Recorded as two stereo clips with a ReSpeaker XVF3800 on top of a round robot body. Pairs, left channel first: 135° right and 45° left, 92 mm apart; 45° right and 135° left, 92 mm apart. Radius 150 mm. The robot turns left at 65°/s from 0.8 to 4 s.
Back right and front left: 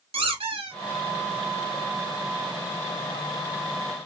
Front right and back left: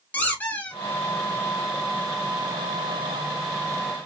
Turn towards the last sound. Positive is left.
turn(degrees=180)